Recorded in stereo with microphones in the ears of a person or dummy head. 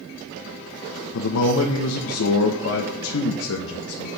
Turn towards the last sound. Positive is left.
turn(degrees=80)